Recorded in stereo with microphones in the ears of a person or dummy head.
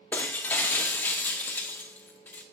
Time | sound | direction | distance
0.1 | breaking glass | 10° left (ahead or behind) | 0.7 m